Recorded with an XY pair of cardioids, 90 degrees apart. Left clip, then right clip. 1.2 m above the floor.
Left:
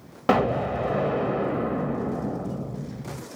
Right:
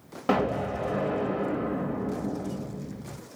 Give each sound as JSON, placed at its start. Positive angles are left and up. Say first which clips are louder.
{"t": 0.3, "sound": "an explosion", "louder": "left 4 dB", "azimuth_deg": 40, "distance_m": 0.7}